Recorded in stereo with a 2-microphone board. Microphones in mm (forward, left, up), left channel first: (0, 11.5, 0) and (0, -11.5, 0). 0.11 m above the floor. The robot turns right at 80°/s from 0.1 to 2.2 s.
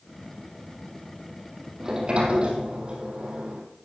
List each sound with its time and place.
1.8 s a sliding door: 165° right, 3 m; by 3.6 s 135° right, 3 m